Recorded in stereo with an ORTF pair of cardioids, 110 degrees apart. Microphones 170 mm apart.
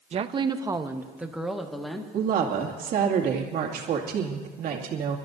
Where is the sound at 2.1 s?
65° right, 2.5 m.